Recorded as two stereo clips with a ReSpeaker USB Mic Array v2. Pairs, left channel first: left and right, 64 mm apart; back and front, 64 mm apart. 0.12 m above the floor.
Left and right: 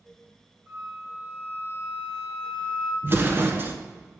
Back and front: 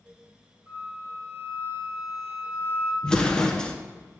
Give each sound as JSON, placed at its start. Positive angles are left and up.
{"t": 0.7, "sound": "a flute", "azimuth_deg": -55, "distance_m": 1.4}
{"t": 3.0, "sound": "an explosion", "azimuth_deg": -110, "distance_m": 0.7}